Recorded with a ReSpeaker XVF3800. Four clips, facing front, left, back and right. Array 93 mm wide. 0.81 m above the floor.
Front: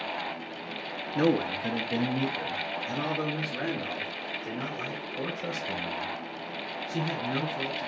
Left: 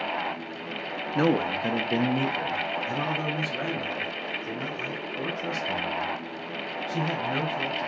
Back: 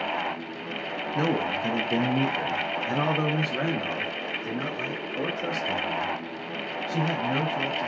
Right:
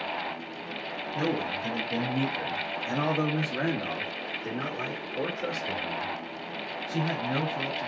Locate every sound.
1.1 s a man speaking: 95° left, 0.9 m; by 7.9 s 125° right, 3 m